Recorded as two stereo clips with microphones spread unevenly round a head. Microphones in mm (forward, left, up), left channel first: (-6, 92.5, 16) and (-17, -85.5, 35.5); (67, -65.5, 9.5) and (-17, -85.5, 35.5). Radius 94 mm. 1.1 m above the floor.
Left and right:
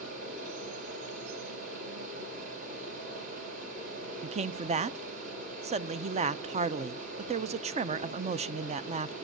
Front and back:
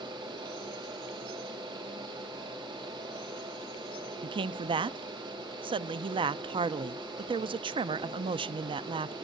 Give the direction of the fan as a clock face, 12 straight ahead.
5 o'clock.